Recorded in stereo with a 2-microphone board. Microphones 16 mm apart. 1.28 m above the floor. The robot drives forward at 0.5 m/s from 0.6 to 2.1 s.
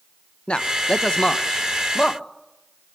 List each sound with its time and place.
0.5 s a man speaking: 80° left, 0.9 m; by 2.2 s 50° left (ahead or behind), 1.2 m